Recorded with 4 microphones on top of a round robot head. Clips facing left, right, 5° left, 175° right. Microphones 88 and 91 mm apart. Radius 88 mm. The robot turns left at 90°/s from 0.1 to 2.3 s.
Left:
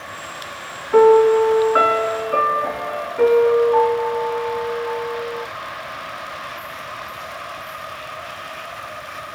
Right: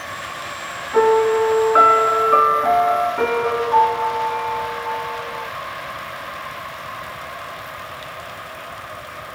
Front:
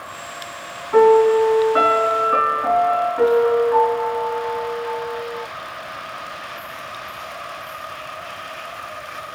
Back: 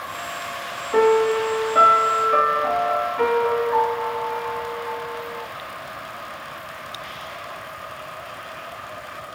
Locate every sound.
0.9 s a piano: 65° left, 3 m; by 5.4 s 60° right, 3 m